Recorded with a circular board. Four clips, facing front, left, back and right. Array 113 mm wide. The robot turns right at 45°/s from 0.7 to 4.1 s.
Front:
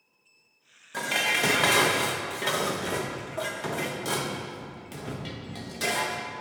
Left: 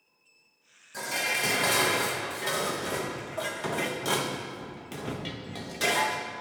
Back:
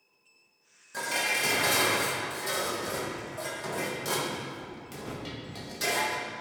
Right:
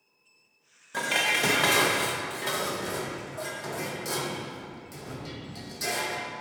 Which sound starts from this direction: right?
Dishes clattering, at 0.9 s.